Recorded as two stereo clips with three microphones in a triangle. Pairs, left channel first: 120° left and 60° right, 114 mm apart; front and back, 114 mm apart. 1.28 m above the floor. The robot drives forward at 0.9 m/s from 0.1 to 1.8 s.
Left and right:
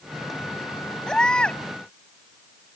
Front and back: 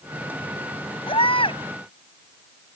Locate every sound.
1.1 s a baby crying: 35° left; by 1.6 s 40° left